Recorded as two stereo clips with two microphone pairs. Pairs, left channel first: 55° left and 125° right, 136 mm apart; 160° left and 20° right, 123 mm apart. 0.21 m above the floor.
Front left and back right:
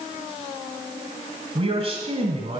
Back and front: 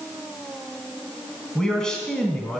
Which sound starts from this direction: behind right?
A man speaking, at 1.6 s.